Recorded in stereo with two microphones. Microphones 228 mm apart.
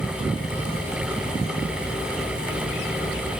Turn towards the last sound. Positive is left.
No sound to turn to.